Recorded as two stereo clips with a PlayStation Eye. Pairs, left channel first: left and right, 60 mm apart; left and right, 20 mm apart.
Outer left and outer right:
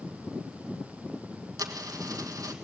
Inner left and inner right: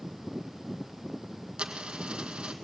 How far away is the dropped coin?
About 2.0 m.